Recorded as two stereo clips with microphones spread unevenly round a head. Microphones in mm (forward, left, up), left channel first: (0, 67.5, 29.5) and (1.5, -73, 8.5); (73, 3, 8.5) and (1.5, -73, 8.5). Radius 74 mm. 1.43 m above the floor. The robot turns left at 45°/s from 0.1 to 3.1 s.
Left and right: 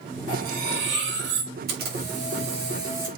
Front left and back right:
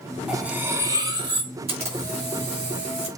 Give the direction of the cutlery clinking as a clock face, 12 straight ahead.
2 o'clock.